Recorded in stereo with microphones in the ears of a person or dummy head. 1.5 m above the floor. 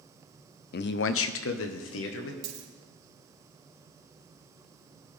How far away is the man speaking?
About 0.5 m.